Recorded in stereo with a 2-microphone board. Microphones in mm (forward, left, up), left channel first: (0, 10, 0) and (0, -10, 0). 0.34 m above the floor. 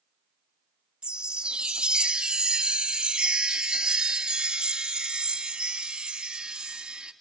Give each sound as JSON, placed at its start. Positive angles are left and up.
{"t": 1.0, "sound": "a chime", "side_deg": -70, "distance_m": 0.7}